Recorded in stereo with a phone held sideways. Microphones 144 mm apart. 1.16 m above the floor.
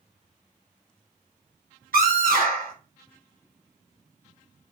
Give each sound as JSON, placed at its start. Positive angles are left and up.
{"t": 1.9, "sound": "a scream", "side_deg": -85, "distance_m": 2.5}